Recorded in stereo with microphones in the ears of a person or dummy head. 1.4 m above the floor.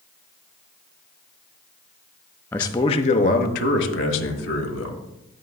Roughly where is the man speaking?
Centre.